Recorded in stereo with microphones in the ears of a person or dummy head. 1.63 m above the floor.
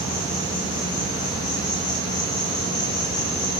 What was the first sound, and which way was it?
An insect, 30° left (ahead or behind).